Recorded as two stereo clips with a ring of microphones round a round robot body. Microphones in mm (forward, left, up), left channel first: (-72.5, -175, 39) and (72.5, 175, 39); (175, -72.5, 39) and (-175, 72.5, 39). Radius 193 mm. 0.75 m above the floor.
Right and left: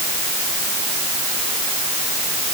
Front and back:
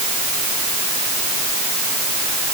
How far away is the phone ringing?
No phone ringing in this recording.